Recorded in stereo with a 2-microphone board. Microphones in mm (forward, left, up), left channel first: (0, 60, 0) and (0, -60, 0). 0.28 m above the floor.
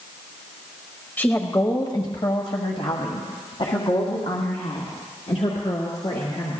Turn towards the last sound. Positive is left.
turn(degrees=65)  # may be behind; listen again after turning